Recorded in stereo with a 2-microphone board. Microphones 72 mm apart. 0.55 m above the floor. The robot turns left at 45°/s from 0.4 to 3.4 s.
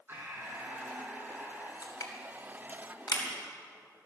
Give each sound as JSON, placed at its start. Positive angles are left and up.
{"t": 0.1, "sound": "breathing", "azimuth_deg": -150, "distance_m": 3.0}
{"t": 1.8, "sound": "crushing", "side_deg": 55, "distance_m": 3.0}